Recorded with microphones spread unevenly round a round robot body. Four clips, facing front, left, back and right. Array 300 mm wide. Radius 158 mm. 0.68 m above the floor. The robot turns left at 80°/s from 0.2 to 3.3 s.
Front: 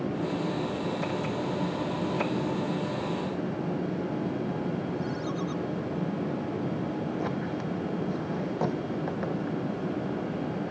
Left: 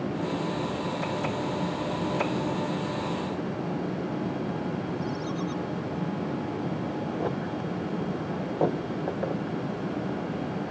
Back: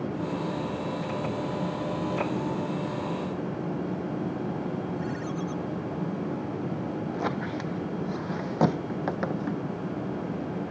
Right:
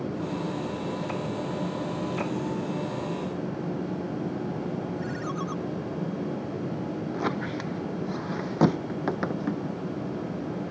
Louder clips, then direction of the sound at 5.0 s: Left 1 dB, even; 45° right.